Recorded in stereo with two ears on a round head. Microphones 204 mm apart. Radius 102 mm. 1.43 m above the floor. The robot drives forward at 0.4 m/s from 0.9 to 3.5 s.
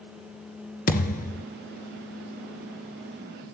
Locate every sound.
0.9 s a thud: 40° left (ahead or behind), 1.7 m